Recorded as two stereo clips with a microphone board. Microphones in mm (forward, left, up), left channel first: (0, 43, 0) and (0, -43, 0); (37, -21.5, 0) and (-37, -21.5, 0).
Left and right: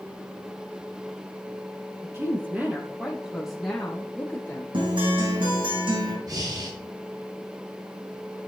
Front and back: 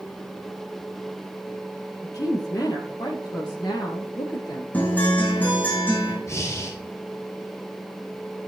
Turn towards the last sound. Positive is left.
turn(degrees=-50)